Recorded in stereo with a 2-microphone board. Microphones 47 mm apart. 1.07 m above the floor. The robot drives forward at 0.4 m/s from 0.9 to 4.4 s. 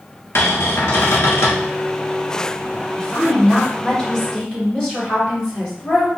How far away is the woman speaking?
About 1.9 m.